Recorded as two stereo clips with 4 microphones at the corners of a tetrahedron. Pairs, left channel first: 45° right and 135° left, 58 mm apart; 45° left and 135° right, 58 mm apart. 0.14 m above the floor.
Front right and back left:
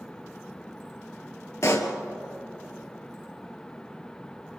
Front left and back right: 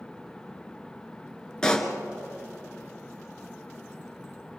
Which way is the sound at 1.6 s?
30° right.